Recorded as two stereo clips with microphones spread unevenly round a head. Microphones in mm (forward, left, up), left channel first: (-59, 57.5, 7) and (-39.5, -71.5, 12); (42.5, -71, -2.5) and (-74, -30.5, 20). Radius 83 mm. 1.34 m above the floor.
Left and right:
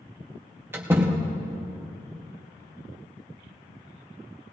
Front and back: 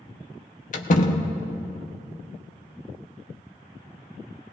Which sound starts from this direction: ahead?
A door slam, at 0.7 s.